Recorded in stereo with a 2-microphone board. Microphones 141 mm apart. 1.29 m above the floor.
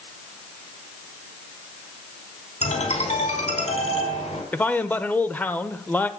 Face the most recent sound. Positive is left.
turn(degrees=10)  # may be behind; listen again after turning